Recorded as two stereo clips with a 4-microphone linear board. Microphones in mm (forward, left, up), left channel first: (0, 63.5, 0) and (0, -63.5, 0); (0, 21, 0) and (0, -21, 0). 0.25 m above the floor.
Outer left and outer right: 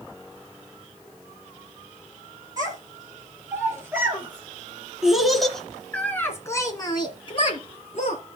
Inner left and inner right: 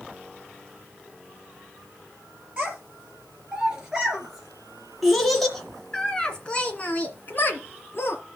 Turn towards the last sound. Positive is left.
turn(degrees=55)  # may be behind; listen again after turning